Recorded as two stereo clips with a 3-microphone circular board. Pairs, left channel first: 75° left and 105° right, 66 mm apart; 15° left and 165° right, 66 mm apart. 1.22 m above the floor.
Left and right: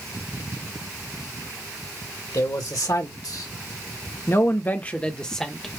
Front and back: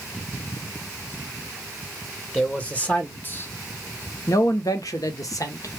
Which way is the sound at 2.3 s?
90° left.